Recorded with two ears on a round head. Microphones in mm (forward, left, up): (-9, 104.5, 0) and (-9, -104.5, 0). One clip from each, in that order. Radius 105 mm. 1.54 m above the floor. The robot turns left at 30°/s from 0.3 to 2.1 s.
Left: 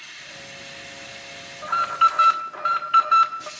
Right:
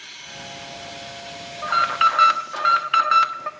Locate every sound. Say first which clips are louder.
1.6 s an alarm: right 1 dB; 15° right (ahead or behind), 1.3 m; by 3.5 s 30° right (ahead or behind), 1.3 m